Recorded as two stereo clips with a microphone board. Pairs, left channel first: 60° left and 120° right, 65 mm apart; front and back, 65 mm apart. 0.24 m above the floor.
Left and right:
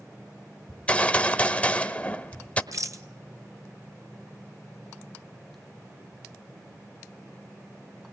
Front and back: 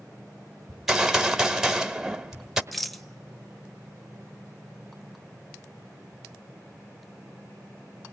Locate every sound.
0.7 s a gunshot: 100° left, 1.2 m
2.7 s a rattle: 90° right, 1.0 m